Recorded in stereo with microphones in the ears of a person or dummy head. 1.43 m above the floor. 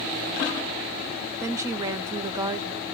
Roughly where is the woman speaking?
Right.